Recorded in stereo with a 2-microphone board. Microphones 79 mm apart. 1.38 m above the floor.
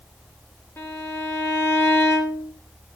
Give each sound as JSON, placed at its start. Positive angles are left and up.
{"t": 0.8, "sound": "a violin", "side_deg": 30, "distance_m": 2.5}